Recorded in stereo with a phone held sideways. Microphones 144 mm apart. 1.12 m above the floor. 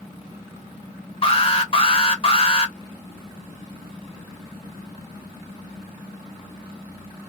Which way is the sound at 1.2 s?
40° left (ahead or behind).